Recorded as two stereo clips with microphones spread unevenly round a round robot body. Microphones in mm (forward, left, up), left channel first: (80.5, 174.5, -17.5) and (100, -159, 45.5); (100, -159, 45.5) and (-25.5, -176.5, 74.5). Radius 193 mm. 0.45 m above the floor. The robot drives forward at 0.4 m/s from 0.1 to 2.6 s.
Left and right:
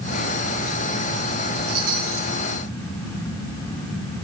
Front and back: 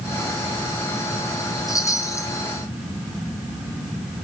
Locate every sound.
1.7 s a chime: 55° right, 2.5 m; by 2.3 s 60° right, 2 m